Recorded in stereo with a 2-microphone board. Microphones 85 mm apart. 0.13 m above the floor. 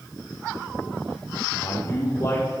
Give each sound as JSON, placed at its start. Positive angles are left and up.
{"t": 1.6, "sound": "a man speaking", "side_deg": 40, "distance_m": 5.0}